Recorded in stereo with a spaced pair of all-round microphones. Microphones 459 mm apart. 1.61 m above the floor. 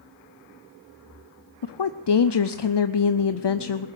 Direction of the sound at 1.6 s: 60° left (ahead or behind).